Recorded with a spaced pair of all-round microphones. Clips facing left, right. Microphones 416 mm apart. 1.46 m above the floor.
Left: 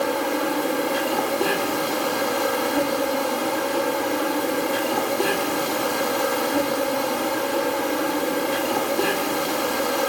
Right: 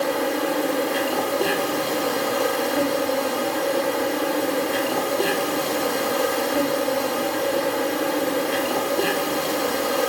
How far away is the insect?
About 6 m.